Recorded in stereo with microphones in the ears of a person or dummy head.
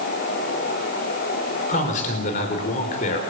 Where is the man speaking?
45° left (ahead or behind), 5 m.